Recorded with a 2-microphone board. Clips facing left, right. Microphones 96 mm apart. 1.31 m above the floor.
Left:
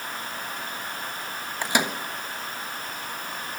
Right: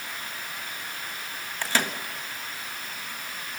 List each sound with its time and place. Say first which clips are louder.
1.6 s a microwave: left 2 dB; 15° left (ahead or behind), 1.2 m